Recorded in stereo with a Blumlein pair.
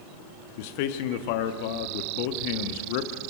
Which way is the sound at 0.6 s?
45° left.